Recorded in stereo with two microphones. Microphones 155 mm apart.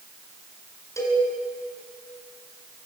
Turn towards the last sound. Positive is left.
turn(degrees=20)  # may be behind; listen again after turning